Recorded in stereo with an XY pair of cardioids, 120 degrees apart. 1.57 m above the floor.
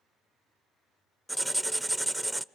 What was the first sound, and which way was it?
Writing, 5° right.